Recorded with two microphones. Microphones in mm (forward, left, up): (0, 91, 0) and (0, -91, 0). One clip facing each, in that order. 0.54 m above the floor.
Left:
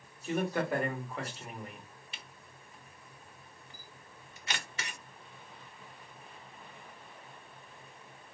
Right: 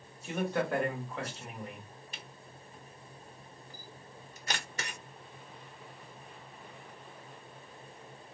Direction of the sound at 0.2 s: 5° left (ahead or behind).